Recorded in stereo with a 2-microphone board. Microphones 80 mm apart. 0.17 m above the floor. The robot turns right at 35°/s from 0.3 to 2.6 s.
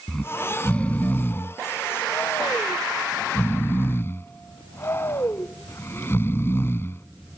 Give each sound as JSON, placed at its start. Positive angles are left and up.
{"t": 0.1, "sound": "snoring", "azimuth_deg": 20}